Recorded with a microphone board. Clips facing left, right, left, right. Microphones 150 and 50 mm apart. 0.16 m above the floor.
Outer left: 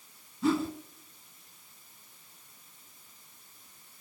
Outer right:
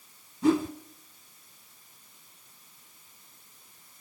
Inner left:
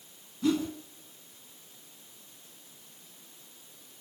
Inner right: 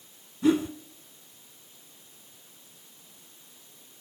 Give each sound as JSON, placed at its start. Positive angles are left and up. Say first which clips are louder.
{"t": 0.4, "sound": "a whoosh", "louder": "outer right 4 dB, inner right 4 dB", "side_deg": -15, "distance_m": 1.9}